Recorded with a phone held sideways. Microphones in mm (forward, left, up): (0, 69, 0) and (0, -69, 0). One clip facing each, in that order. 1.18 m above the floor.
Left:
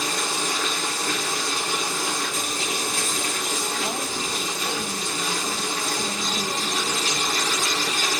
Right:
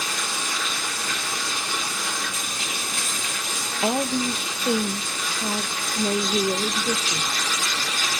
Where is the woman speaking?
75° right (ahead or behind), 0.7 m.